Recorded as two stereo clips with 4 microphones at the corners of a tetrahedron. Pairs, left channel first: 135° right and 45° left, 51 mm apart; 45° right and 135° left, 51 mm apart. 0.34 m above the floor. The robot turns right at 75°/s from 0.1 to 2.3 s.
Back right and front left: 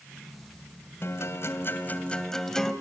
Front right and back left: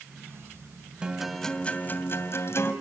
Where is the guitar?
155° right, 2.5 m; by 2.7 s 60° right, 2.5 m.